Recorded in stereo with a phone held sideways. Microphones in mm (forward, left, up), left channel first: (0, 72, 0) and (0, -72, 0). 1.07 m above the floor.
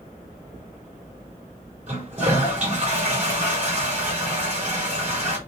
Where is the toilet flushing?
55° right (ahead or behind), 4 m.